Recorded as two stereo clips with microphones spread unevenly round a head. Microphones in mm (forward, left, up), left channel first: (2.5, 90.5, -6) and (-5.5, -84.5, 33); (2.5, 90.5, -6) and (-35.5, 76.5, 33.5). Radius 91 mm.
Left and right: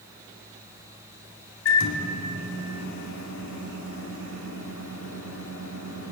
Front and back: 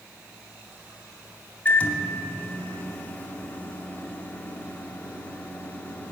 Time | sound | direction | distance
1.6 | a microwave | 80° left | 3 m